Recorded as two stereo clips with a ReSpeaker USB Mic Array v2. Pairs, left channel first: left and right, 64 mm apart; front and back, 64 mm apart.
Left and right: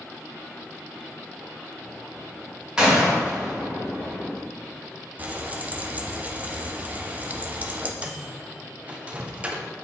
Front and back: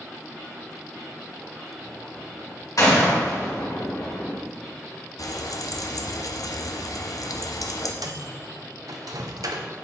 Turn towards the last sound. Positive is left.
turn(degrees=-160)